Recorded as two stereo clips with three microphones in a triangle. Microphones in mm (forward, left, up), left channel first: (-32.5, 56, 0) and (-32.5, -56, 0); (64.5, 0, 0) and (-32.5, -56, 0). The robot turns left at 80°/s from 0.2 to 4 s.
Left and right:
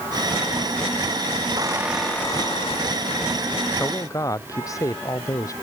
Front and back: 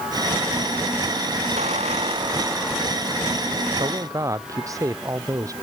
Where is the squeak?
145° right; by 3.3 s 80° left.